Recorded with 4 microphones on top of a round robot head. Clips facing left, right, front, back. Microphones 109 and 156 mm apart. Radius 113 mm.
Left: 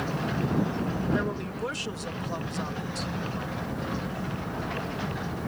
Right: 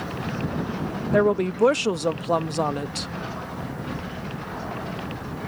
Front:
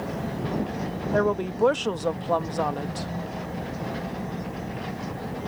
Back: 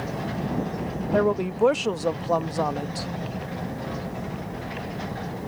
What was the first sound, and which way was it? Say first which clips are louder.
A woman speaking: right 10 dB, back 2 dB; 95° right.